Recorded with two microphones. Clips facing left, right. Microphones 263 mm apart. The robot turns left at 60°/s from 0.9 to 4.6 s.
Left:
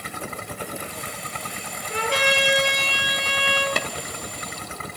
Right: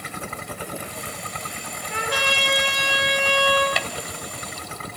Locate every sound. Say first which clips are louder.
1.9 s a trumpet: left 4 dB; 40° left, 7.5 m; by 3.7 s 65° right, 7.5 m
3.8 s tapping: left 2 dB; 50° left (ahead or behind), 1.8 m